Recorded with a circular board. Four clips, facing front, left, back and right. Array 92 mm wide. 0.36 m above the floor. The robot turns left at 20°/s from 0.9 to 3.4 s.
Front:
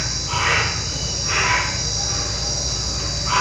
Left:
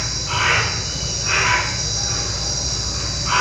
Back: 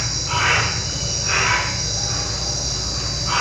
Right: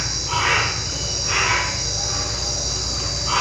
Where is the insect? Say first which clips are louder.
Even, back 1 dB; 130° left, 1.0 m; by 3.4 s 80° left, 1.0 m.